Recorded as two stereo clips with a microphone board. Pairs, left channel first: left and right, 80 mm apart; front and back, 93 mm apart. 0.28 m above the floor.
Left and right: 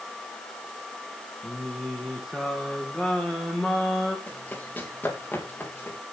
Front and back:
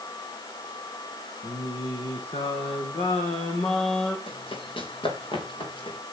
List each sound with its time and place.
1.4 s singing: straight ahead, 3.5 m
4.3 s running footsteps: 15° left, 4.5 m; by 6.0 s 20° left, 5.5 m